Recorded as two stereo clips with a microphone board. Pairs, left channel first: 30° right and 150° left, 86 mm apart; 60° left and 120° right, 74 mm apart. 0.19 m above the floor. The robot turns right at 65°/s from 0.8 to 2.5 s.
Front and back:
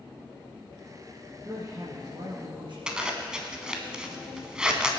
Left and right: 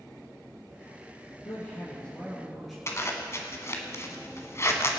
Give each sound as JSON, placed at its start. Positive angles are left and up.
{"t": 1.4, "sound": "a woman speaking", "azimuth_deg": 80, "distance_m": 2.5}
{"t": 2.9, "sound": "a zipper", "azimuth_deg": 75, "distance_m": 1.3}